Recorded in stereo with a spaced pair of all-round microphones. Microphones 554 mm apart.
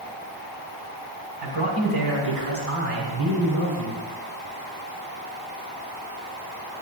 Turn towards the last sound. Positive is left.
turn(degrees=-75)  # may be behind; listen again after turning